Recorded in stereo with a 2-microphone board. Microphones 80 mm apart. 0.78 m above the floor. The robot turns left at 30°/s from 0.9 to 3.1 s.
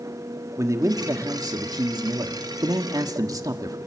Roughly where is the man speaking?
Ahead right.